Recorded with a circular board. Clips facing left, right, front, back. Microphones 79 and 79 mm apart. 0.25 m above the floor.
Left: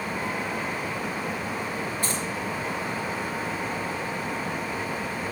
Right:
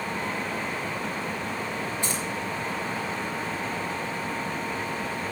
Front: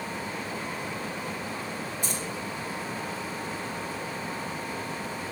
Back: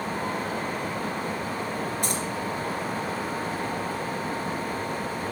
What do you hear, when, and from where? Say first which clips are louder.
2.0 s keys jangling: left 1 dB, back 5 dB; 160° right, 3 m